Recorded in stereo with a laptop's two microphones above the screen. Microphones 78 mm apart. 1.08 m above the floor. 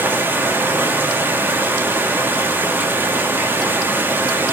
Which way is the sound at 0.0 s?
25° right (ahead or behind).